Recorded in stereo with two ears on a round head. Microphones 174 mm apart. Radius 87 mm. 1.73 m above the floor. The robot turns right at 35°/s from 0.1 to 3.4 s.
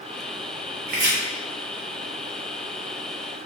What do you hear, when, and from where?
0.9 s chopping: 45° right (ahead or behind), 0.8 m; by 1.1 s 40° right (ahead or behind), 0.8 m